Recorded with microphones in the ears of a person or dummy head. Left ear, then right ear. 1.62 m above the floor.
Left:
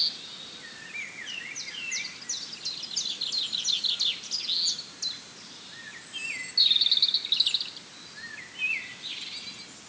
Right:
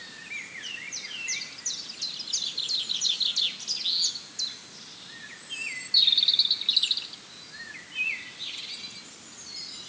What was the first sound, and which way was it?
Only background noise.